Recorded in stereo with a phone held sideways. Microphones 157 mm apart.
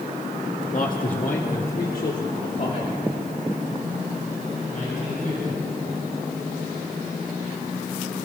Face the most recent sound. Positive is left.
turn(degrees=70)  # may be behind; listen again after turning